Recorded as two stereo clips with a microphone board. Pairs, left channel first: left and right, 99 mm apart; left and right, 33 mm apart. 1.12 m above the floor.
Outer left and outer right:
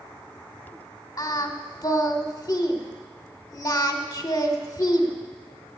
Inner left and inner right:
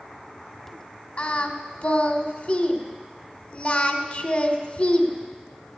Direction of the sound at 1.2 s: 35° left (ahead or behind).